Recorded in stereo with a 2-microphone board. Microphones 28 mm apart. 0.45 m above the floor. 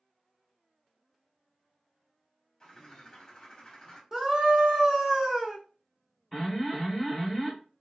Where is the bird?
25° left (ahead or behind), 0.8 m.